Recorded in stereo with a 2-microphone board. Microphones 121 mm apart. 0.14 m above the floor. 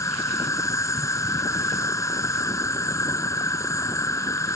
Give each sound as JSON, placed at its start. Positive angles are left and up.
{"t": 0.0, "sound": "an insect", "side_deg": 25}